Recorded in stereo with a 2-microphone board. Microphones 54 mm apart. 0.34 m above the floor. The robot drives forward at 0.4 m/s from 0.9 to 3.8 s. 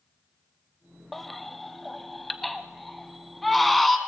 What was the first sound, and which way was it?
A baby crying, centre (ahead or behind).